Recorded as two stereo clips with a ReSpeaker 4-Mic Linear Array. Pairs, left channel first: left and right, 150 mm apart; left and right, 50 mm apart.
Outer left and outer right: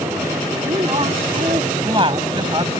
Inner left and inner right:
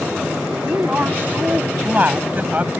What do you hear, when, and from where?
0.6 s a woman speaking: 40° right (ahead or behind); by 2.8 s 30° right (ahead or behind)